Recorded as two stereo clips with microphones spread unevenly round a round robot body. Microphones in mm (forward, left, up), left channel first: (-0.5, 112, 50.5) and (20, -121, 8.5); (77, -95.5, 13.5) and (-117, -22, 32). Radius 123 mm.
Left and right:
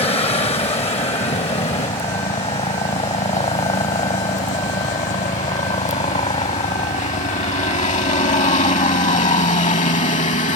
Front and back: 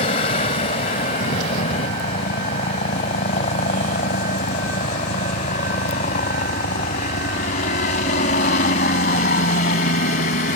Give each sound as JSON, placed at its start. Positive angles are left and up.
{"t": 0.0, "sound": "a helicopter", "azimuth_deg": 30}